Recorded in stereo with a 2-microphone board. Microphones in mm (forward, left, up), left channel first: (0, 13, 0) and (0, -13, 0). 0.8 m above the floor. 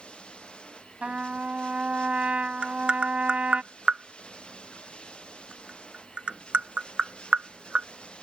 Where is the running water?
40° left (ahead or behind).